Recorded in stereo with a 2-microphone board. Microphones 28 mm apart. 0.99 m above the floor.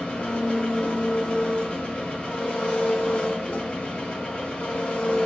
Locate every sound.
0.0 s an engine running: 40° left (ahead or behind), 0.8 m